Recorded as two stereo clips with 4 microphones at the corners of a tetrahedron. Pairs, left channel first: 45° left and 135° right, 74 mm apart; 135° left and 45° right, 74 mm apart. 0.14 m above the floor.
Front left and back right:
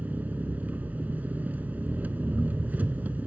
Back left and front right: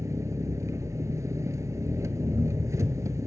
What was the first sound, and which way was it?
An engine running, 75° right.